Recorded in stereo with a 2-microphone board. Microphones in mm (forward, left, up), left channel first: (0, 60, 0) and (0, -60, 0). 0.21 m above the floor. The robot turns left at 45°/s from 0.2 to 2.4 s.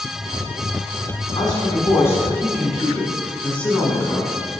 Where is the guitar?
I don't hear a guitar.